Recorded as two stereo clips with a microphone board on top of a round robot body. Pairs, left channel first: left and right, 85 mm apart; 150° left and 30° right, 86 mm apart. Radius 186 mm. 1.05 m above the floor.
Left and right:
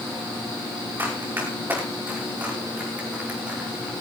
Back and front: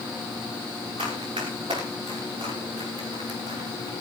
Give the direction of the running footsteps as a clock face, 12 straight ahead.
1 o'clock.